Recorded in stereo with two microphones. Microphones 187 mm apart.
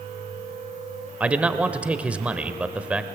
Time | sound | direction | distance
1.2 | a man speaking | 5° right (ahead or behind) | 1.0 m